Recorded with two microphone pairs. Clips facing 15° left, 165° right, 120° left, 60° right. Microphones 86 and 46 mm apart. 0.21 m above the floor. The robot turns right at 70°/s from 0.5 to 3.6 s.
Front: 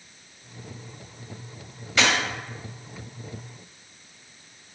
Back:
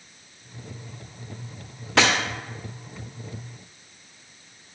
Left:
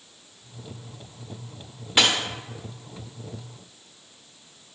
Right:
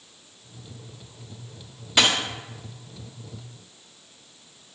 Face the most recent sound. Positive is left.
turn(degrees=-45)